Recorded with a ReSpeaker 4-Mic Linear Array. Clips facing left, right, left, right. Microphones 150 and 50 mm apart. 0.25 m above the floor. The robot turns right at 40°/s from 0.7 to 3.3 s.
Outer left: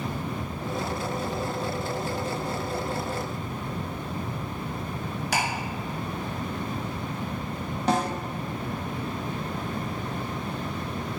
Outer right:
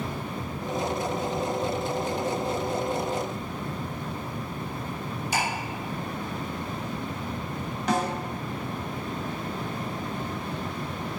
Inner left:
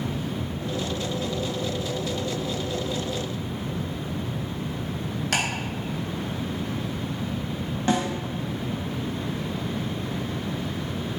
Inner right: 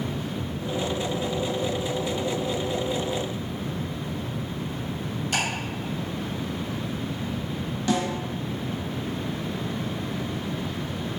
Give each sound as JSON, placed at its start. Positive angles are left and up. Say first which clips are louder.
{"t": 5.3, "sound": "ticking", "louder": "even, inner left 1 dB", "side_deg": 75, "distance_m": 1.6}
{"t": 7.9, "sound": "a snare drum", "louder": "outer left 1 dB, inner left 1 dB", "side_deg": 30, "distance_m": 1.0}